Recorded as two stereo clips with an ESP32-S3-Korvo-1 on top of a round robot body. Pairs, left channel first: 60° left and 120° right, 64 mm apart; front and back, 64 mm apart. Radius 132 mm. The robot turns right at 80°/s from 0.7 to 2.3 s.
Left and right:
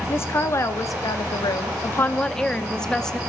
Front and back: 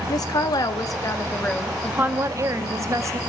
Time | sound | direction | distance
0.1 | a woman speaking | 10° left | 1.9 m